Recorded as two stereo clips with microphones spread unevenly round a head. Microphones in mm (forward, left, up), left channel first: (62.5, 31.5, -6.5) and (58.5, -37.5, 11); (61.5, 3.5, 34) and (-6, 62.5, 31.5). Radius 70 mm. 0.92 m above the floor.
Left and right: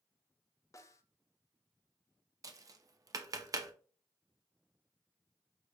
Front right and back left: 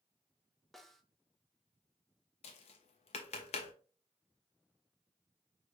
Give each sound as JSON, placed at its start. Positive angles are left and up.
{"t": 0.7, "sound": "a snare drum", "azimuth_deg": 45, "distance_m": 0.8}
{"t": 2.4, "sound": "tapping", "azimuth_deg": -60, "distance_m": 0.8}